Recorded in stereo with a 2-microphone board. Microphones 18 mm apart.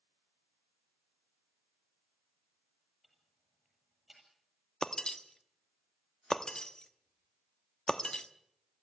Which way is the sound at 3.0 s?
15° right (ahead or behind).